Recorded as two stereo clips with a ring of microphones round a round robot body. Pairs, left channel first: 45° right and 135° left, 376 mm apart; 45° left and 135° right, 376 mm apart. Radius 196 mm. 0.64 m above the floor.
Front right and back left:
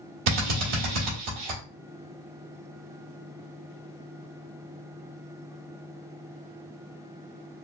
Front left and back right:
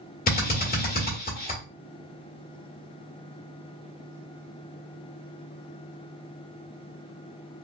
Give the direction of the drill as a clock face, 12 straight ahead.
8 o'clock.